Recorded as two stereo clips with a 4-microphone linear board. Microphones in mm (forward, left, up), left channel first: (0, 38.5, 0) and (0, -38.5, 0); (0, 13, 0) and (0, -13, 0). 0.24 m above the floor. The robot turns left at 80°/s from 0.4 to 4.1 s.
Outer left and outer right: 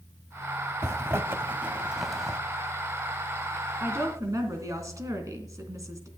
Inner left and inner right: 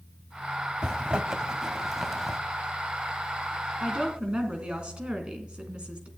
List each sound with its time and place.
0.8 s a zipper: 35° right (ahead or behind), 1.0 m; by 2.4 s 10° left (ahead or behind), 1.0 m
3.8 s a woman speaking: 25° right (ahead or behind), 2.5 m; by 6.1 s 45° right (ahead or behind), 2.5 m